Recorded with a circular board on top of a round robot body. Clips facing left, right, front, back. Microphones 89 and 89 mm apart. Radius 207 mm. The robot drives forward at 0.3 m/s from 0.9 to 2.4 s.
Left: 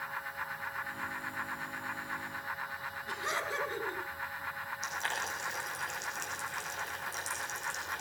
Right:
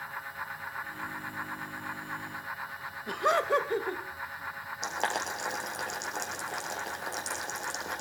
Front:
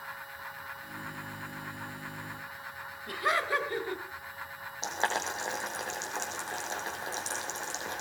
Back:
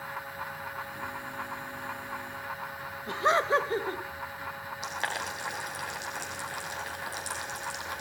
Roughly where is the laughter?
Behind right.